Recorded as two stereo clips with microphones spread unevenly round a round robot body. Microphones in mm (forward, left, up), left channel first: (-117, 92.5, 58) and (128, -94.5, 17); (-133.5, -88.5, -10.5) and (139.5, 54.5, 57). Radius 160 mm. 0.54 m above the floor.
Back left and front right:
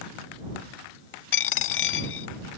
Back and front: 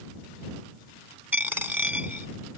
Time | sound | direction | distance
1.3 | a dropped coin | 105° left | ?